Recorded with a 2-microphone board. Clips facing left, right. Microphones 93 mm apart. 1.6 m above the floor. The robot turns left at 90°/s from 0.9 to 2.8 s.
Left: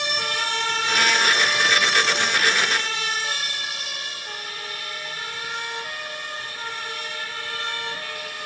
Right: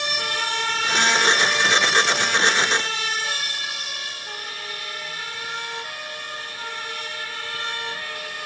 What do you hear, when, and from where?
Only background noise.